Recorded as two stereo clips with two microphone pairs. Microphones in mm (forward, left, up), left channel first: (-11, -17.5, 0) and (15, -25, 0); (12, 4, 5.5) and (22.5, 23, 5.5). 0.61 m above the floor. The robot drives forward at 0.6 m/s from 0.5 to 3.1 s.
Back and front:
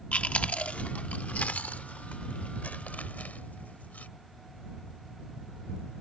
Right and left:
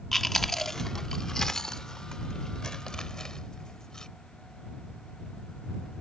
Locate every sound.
0.1 s chewing: 160° left; by 4.1 s 175° left